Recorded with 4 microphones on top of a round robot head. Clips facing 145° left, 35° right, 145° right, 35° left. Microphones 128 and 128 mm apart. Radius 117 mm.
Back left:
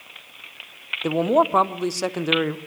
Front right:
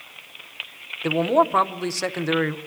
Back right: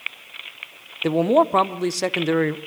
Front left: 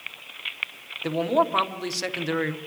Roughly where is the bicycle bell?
I don't hear a bicycle bell.